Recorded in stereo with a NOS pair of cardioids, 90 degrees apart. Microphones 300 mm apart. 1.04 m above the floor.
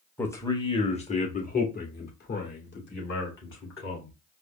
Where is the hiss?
No hiss in this recording.